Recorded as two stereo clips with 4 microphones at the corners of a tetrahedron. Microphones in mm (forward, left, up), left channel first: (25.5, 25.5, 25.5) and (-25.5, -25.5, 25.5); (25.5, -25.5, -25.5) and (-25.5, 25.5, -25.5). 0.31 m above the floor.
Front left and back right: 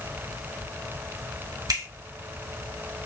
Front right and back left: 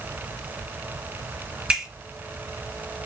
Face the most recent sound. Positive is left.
turn(degrees=-150)